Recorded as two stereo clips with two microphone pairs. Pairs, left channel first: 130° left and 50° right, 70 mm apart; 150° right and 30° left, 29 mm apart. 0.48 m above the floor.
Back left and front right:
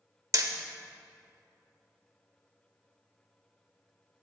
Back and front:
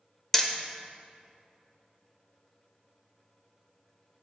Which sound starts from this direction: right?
Hammering, at 0.3 s.